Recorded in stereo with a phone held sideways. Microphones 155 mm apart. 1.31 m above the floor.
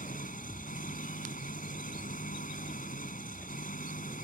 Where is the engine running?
65° left (ahead or behind).